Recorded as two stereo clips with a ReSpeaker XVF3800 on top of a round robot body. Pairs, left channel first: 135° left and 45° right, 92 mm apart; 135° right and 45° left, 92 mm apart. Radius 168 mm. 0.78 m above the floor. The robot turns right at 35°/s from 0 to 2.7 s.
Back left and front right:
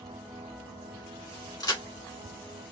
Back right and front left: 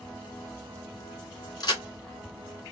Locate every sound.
1.6 s a crack: straight behind, 2 m; by 1.8 s 175° right, 2 m